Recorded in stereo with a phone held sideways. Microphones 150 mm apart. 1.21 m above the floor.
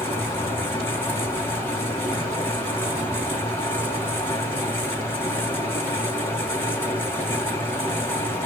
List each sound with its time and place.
0.0 s a fan: 15° left (ahead or behind), 3 m